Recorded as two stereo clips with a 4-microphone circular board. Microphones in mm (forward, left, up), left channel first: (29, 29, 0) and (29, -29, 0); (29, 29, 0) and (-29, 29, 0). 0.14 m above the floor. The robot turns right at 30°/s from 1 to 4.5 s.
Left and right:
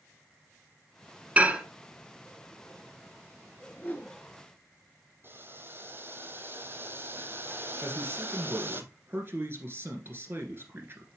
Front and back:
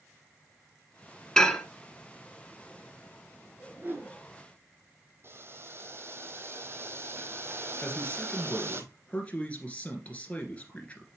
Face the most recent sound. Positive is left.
turn(degrees=-60)